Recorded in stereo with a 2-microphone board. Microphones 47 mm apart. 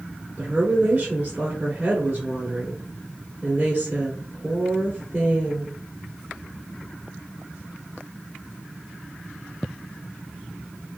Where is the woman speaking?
30° right (ahead or behind), 1.7 m.